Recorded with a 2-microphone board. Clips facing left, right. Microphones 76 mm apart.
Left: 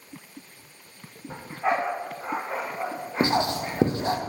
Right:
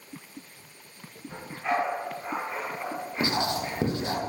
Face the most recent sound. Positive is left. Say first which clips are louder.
# left 4 dB
turn(degrees=35)  # may be behind; listen again after turning